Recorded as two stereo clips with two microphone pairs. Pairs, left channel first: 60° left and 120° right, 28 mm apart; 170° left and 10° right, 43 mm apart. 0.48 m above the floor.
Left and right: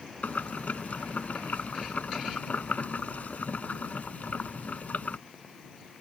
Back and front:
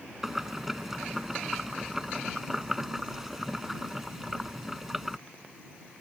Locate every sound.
0.2 s boiling: 70° left